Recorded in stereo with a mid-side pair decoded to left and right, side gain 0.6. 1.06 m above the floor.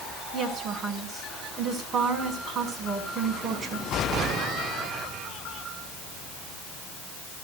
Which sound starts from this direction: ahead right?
A woman speaking, at 0.3 s.